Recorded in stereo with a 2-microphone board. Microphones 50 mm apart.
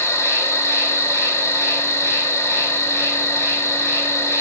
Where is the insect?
65° left (ahead or behind), 1.4 m.